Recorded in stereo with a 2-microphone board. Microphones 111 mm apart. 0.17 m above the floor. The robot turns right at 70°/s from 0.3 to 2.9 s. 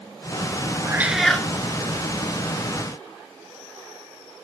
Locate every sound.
0.8 s a cat meowing: 25° right, 1.1 m; by 1.5 s 15° left, 1.1 m